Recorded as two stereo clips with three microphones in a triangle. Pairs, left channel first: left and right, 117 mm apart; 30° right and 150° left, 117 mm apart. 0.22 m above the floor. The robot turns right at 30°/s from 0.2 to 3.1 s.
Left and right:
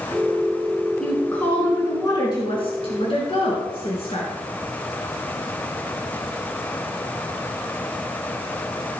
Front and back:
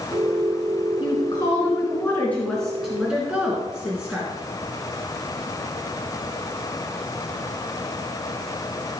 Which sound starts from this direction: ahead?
A woman speaking, at 1.0 s.